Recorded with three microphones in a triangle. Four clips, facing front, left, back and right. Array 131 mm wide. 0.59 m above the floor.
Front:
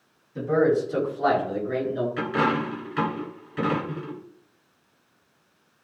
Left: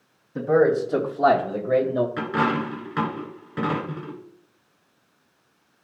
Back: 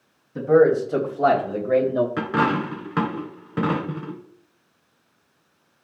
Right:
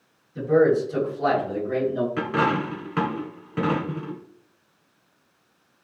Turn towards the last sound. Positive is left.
turn(degrees=-170)